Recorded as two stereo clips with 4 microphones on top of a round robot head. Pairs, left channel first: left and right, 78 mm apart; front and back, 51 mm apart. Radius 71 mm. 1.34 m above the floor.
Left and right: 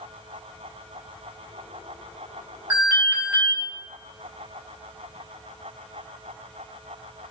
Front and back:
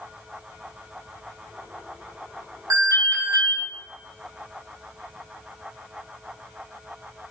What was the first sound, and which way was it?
An alarm, 165° right.